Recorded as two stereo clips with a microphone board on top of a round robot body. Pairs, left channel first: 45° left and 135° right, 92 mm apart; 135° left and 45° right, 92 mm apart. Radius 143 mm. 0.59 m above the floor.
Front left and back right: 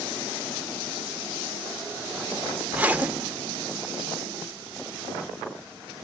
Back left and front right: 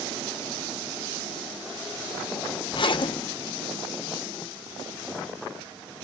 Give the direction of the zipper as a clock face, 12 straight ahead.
7 o'clock.